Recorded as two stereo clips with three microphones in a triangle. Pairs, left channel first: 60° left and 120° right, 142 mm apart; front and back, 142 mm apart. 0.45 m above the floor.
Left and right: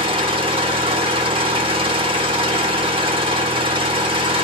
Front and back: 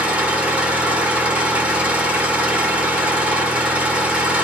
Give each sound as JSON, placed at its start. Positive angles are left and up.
{"t": 0.0, "sound": "an engine running", "azimuth_deg": -105, "distance_m": 1.0}